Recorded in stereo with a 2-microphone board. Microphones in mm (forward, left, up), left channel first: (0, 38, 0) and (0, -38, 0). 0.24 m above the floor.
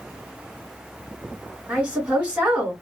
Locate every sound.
1.7 s a woman speaking: 15° right (ahead or behind), 1.7 m